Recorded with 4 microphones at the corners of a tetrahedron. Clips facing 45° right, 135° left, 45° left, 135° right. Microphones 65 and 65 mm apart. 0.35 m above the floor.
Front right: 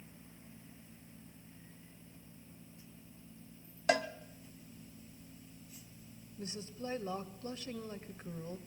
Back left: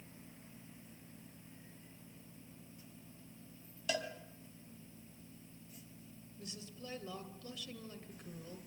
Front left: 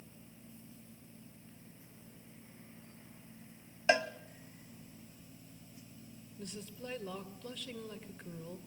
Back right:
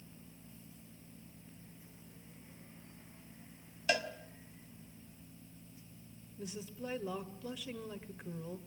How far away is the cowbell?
About 0.9 m.